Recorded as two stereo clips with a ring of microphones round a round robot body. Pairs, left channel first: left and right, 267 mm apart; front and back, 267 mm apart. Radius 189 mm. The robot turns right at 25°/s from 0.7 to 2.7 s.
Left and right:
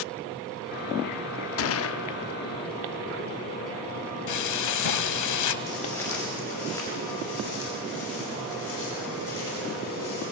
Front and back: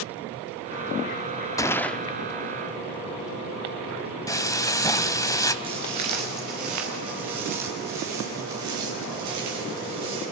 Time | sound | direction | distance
1.6 | a gunshot | 75° left | 0.5 m
4.3 | frying | 80° left | 1.1 m
5.6 | footsteps | 175° left | 2.5 m